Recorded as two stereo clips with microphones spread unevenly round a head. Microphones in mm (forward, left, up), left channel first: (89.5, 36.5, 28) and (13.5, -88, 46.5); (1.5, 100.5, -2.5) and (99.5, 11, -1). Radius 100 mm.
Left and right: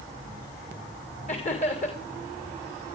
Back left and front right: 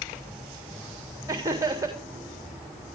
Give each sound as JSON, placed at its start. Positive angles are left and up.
{"t": 1.3, "sound": "laughter", "azimuth_deg": 20, "distance_m": 3.5}